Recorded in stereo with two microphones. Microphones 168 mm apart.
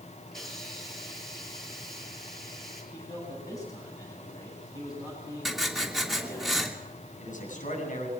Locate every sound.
0.3 s a hiss: centre (ahead or behind), 9.5 m
2.9 s a man speaking: 20° left (ahead or behind), 10 m
5.5 s writing: centre (ahead or behind), 3 m
7.2 s a man speaking: 55° left (ahead or behind), 8 m